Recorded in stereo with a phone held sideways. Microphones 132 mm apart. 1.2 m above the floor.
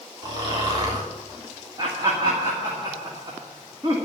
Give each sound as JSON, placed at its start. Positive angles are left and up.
{"t": 0.2, "sound": "snoring", "side_deg": -35, "distance_m": 4.0}
{"t": 1.8, "sound": "laughter", "side_deg": -35, "distance_m": 2.5}